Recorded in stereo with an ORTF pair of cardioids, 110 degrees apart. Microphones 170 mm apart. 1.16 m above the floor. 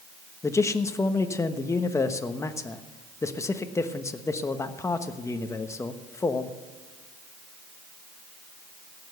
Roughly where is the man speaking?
Ahead.